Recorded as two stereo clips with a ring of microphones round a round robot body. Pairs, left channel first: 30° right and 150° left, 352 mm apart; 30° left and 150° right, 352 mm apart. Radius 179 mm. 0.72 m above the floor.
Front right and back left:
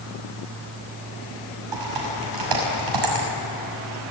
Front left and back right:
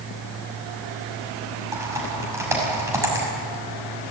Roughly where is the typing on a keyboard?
Behind left.